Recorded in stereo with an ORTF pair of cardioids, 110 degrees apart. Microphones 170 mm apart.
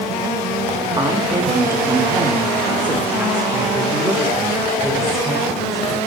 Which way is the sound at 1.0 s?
25° right.